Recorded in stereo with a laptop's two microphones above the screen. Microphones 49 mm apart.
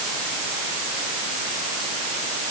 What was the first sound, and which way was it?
Only background noise.